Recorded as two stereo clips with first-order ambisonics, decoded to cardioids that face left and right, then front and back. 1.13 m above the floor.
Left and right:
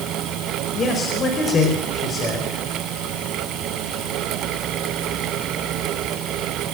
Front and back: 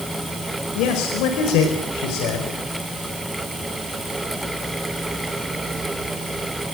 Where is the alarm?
No alarm in this recording.